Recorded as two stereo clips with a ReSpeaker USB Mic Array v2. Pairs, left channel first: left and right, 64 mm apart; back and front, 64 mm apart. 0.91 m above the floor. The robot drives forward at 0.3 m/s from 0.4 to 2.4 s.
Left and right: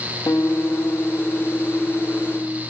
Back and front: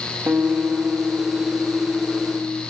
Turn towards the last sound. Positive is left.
turn(degrees=115)